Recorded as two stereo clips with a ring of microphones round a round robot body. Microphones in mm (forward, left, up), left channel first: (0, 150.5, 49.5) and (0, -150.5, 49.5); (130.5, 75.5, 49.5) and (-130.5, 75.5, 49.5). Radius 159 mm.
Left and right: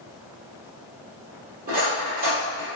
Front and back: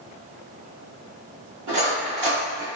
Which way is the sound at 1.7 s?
155° right.